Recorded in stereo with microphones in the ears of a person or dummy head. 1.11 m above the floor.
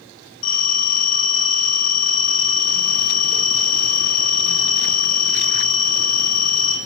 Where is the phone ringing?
60° left (ahead or behind), 0.7 m.